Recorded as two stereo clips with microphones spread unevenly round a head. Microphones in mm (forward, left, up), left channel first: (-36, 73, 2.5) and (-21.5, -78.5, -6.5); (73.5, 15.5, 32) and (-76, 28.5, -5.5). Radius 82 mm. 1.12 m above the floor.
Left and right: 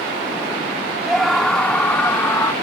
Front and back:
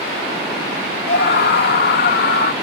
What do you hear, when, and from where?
1.1 s a scream: 5° left; by 2.5 s 20° left